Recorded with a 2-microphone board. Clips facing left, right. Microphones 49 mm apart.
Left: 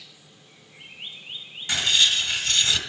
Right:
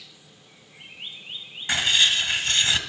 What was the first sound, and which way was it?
Writing, 25° right (ahead or behind).